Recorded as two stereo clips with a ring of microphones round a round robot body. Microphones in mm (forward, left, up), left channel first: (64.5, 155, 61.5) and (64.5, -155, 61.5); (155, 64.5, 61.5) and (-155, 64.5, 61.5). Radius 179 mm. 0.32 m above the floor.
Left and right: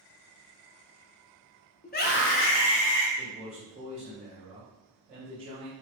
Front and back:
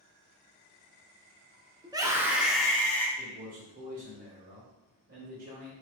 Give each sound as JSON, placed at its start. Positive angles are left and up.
{"t": 1.8, "sound": "a scream", "azimuth_deg": 120, "distance_m": 1.0}
{"t": 3.2, "sound": "a man speaking", "azimuth_deg": -145, "distance_m": 1.3}